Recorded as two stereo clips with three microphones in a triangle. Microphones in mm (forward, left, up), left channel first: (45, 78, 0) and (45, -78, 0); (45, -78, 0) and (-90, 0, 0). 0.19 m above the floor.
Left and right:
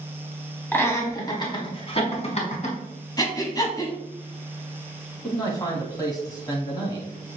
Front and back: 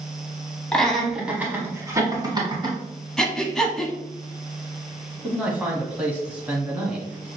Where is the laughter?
40° left, 1.1 m; by 2.8 s 105° left, 1.6 m.